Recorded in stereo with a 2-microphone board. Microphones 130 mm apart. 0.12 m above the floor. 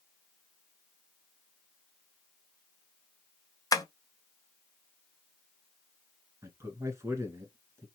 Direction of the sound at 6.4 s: 20° right (ahead or behind).